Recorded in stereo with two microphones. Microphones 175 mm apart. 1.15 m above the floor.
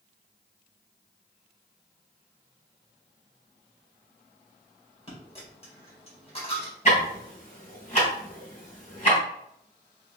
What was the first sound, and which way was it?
A dropped coin, 35° left (ahead or behind).